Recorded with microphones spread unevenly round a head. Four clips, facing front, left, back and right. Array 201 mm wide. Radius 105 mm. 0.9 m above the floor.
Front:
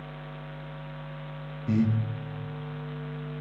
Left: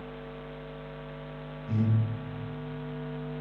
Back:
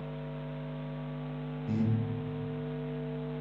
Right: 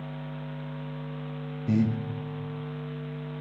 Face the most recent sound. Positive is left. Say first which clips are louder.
# right 5 dB, front 6 dB
turn(degrees=-65)